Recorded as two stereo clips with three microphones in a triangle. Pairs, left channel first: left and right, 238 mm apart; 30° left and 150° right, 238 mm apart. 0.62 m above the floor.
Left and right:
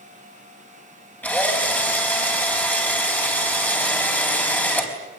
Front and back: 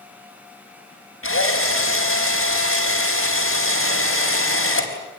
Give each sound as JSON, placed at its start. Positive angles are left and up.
{"t": 1.2, "sound": "a drill", "azimuth_deg": 5, "distance_m": 4.5}